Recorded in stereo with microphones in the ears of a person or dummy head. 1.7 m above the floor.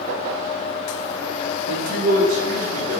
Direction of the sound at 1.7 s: 55° right (ahead or behind).